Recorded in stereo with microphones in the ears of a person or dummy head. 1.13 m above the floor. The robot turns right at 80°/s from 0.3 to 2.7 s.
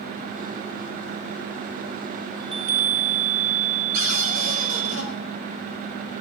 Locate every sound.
2.4 s a chime: 20° right (ahead or behind), 1.7 m; by 4.9 s 40° right (ahead or behind), 1.7 m
3.9 s a cupboard door: 40° right (ahead or behind), 6 m